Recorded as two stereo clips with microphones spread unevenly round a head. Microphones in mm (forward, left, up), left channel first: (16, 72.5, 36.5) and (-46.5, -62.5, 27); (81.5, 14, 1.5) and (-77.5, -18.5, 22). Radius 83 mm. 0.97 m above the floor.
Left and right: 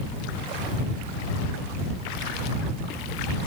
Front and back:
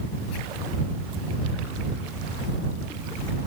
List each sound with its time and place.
Only background noise.